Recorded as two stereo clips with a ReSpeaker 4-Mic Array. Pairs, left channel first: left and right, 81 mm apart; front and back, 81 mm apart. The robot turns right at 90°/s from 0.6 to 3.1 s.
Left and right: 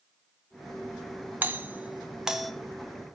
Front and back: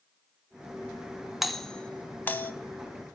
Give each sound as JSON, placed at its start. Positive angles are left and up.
{"t": 1.4, "sound": "a doorbell", "azimuth_deg": -95, "distance_m": 0.8}